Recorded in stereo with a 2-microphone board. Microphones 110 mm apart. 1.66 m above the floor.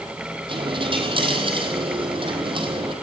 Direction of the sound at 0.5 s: 50° right (ahead or behind).